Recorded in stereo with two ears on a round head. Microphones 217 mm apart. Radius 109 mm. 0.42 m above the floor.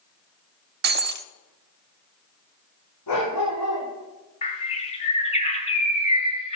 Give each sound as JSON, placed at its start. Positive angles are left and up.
{"t": 0.8, "sound": "breaking glass", "side_deg": -40, "distance_m": 0.5}
{"t": 3.1, "sound": "a dog barking", "side_deg": 90, "distance_m": 6.0}
{"t": 4.4, "sound": "a bird", "side_deg": 25, "distance_m": 1.5}